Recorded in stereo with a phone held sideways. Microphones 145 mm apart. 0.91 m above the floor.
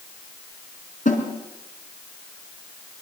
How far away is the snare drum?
About 4.5 m.